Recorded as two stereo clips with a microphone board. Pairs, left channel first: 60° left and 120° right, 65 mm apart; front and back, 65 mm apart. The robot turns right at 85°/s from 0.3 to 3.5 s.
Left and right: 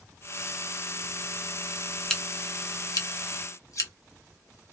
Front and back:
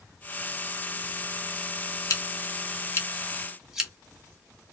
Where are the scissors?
20° right, 0.9 m; by 3.9 s 95° left, 0.9 m.